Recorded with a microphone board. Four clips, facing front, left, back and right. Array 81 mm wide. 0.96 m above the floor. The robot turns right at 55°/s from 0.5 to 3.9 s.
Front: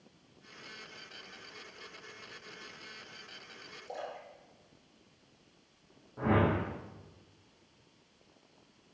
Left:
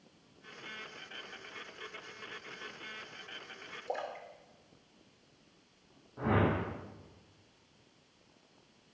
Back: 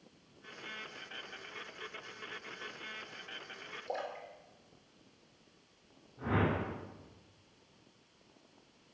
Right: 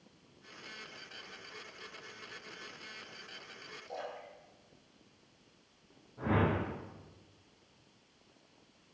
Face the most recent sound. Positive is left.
turn(degrees=35)